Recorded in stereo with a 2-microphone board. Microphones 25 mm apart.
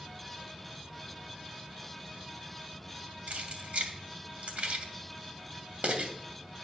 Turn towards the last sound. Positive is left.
turn(degrees=-75)  # may be behind; listen again after turning